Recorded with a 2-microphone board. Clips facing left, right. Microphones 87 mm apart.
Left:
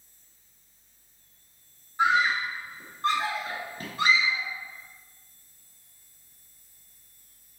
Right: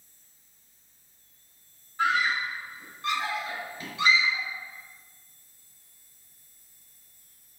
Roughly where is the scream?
Centre.